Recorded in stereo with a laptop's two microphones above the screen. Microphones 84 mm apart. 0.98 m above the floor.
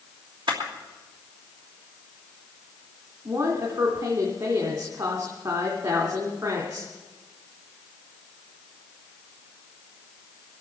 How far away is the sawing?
I don't hear sawing.